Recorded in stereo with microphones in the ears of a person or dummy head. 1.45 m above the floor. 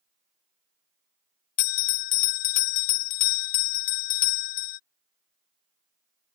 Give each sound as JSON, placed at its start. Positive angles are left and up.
{"t": 1.6, "sound": "a bell", "side_deg": 50}